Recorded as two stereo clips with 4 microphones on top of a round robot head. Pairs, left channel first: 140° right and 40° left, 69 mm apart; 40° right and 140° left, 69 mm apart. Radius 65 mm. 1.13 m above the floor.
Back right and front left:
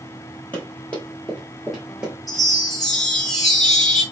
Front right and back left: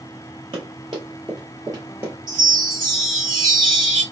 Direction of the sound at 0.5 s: 155° left.